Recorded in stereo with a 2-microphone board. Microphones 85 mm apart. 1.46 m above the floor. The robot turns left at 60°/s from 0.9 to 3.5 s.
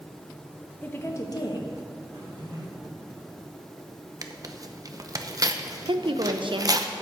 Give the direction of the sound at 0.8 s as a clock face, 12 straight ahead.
7 o'clock.